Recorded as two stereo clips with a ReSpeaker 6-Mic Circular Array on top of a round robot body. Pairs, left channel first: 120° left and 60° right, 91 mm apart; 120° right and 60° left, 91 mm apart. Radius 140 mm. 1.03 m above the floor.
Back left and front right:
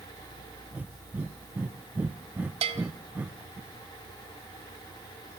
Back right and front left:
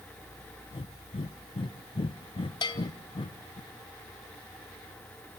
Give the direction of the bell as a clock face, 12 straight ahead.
3 o'clock.